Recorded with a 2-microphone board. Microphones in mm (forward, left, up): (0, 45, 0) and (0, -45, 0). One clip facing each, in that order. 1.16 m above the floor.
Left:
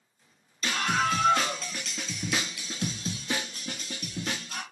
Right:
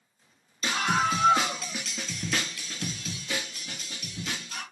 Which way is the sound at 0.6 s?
20° right (ahead or behind).